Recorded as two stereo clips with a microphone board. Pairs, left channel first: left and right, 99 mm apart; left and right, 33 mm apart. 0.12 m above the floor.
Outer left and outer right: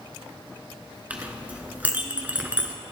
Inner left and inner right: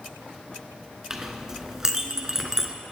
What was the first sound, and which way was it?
A clink, 15° right (ahead or behind).